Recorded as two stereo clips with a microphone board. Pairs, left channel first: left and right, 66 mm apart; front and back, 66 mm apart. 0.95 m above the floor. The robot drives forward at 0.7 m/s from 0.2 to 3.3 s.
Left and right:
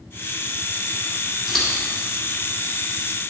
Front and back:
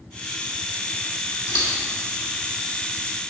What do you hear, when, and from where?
1.5 s scissors: 5° right, 2 m